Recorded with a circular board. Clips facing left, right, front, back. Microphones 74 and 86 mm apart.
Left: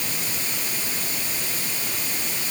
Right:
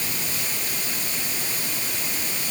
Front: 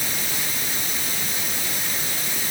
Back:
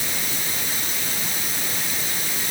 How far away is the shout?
No shout in this recording.